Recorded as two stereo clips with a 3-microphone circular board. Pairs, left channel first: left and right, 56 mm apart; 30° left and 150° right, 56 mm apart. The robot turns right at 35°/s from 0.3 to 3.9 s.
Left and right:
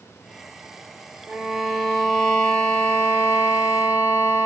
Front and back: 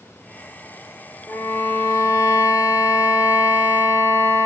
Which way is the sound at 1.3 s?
20° right.